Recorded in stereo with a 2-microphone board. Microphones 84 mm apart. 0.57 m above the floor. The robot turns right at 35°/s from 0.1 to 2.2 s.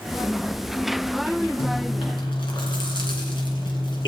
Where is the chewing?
85° left, 3 m; by 4.1 s 70° left (ahead or behind), 3 m.